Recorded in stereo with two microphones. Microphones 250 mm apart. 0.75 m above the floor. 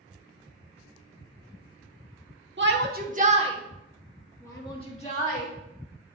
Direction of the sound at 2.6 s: 50° right (ahead or behind).